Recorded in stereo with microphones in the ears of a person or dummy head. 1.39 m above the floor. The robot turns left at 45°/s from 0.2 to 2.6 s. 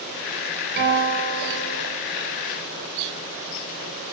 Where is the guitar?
60° right, 3 m; by 1.9 s 115° right, 3 m.